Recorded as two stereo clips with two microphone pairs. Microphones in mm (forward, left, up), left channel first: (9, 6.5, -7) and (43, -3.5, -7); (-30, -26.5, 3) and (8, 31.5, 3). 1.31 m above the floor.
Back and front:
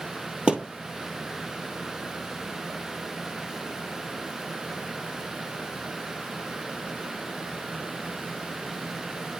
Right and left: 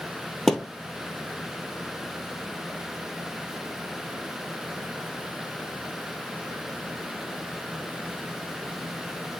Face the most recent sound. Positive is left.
turn(degrees=-45)